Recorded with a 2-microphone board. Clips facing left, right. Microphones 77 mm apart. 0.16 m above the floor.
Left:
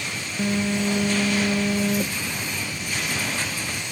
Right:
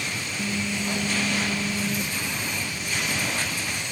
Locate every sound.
0.4 s a phone buzzing: 50° left (ahead or behind)